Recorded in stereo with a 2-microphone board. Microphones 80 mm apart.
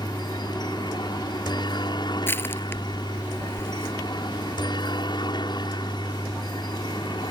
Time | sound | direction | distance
0.0 | a helicopter | 65° left (ahead or behind) | ?
2.3 | crushing | 25° left (ahead or behind) | ?